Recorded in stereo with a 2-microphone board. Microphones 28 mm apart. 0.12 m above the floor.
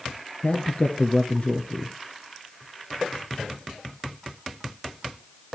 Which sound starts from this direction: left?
A man speaking, at 0.4 s.